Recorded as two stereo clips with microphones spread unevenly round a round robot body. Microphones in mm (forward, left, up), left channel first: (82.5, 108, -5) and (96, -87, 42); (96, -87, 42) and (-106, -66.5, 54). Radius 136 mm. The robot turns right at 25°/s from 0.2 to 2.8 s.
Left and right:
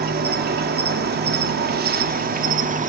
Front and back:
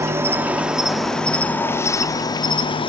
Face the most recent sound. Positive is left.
turn(degrees=-45)